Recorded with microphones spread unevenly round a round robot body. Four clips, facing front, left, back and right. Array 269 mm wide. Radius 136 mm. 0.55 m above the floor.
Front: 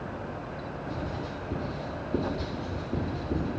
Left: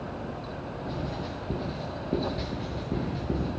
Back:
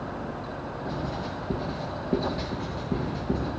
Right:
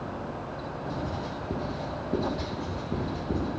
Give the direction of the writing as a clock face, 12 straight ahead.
7 o'clock.